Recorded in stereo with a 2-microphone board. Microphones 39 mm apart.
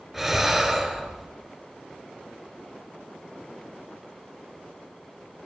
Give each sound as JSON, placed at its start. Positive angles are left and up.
{"t": 0.1, "sound": "breathing", "side_deg": -5, "distance_m": 1.6}